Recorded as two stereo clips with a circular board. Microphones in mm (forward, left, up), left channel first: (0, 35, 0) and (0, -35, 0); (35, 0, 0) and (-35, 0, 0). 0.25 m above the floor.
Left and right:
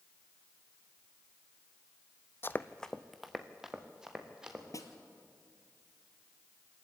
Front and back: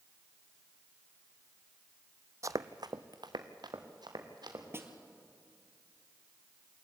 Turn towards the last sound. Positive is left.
turn(degrees=125)